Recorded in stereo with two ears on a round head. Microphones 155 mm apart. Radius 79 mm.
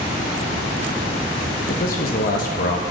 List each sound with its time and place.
1.7 s a man speaking: 55° left (ahead or behind), 0.7 m